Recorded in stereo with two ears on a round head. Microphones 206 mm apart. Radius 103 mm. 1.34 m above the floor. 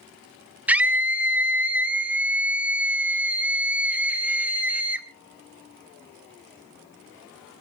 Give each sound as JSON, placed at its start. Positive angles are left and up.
{"t": 0.7, "sound": "a scream", "side_deg": -5, "distance_m": 1.4}